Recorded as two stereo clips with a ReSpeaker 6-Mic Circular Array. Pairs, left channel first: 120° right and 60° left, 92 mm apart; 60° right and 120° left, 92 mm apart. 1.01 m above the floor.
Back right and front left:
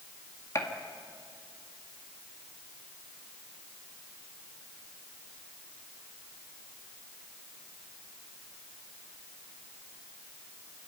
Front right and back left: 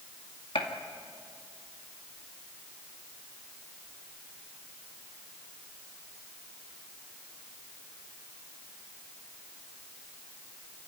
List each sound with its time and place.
0.6 s a gunshot: 65° right, 2 m